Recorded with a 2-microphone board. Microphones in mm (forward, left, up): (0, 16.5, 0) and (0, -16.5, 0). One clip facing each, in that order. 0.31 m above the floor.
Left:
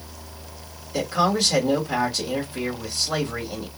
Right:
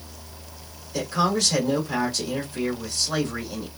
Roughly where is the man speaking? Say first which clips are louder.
Left 2 dB; centre.